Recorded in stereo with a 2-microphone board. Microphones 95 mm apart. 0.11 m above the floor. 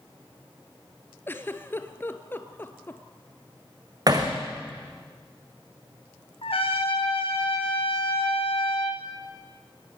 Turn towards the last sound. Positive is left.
turn(degrees=80)